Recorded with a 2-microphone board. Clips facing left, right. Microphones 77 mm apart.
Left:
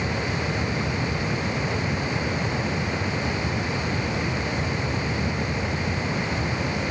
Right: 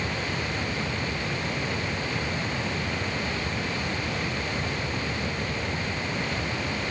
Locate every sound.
Only background noise.